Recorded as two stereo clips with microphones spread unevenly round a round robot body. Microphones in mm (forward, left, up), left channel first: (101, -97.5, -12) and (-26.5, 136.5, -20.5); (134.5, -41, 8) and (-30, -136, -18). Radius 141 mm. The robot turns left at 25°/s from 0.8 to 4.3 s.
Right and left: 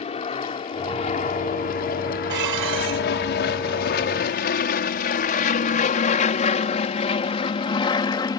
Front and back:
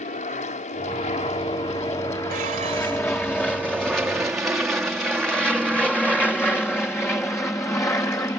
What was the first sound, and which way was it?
An aircraft, straight ahead.